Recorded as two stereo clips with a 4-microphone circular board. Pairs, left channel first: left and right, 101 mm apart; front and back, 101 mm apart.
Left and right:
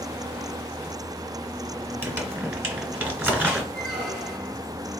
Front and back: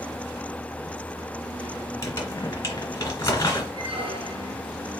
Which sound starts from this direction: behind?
A squeak, at 3.7 s.